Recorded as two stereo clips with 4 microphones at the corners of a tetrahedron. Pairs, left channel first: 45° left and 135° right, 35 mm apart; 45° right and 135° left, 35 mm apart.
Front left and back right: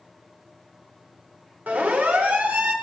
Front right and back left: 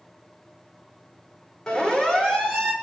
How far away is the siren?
About 4 m.